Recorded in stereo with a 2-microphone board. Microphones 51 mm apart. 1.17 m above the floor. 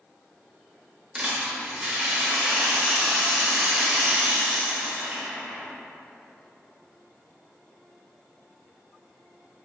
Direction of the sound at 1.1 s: 20° right (ahead or behind).